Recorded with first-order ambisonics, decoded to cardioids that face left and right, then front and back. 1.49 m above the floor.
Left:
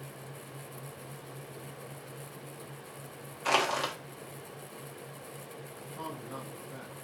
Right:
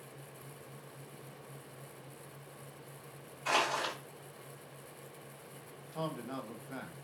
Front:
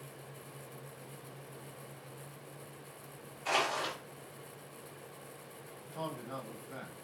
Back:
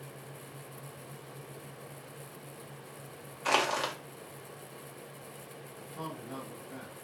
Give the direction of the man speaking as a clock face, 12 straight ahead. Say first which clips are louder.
Right 2 dB, front 1 dB; 3 o'clock.